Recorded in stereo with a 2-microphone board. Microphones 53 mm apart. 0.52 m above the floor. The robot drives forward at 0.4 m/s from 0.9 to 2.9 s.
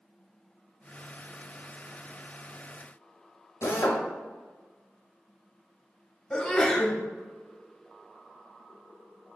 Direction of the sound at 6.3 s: 15° left (ahead or behind).